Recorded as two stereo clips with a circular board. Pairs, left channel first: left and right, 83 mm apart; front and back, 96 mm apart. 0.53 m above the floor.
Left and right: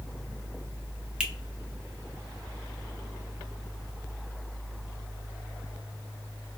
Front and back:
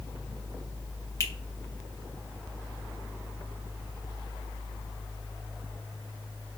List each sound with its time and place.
1.2 s a finger snap: 20° right, 0.5 m